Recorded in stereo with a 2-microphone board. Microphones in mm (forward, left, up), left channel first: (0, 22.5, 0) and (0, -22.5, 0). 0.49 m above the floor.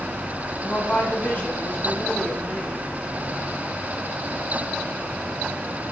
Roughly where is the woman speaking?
Left.